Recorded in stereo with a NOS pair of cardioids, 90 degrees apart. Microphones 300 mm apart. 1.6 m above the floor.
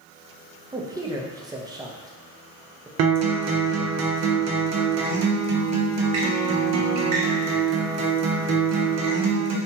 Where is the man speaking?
10° right, 0.5 m.